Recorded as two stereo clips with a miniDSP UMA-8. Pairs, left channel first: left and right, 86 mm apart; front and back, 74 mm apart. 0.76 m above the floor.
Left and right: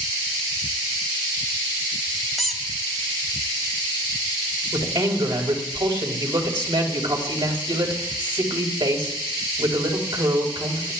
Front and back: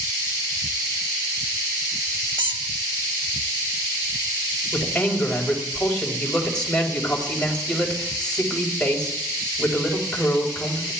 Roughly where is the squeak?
Behind.